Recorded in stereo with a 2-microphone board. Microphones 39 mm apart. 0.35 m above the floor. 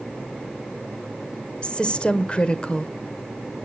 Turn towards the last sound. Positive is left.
turn(degrees=25)  # may be behind; listen again after turning